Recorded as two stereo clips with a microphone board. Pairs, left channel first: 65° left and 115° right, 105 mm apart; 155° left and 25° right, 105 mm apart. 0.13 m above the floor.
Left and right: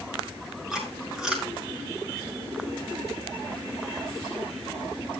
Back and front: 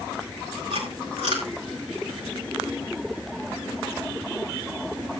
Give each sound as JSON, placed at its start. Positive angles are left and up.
{"t": 0.7, "sound": "chewing", "azimuth_deg": -30, "distance_m": 5.0}